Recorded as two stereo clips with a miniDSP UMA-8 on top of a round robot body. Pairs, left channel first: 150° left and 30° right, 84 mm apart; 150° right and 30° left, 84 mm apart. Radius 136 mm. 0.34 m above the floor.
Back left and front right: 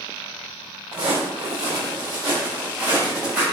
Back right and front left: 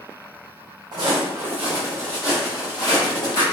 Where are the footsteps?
5° right, 0.8 m; by 3.4 s 110° right, 1.4 m.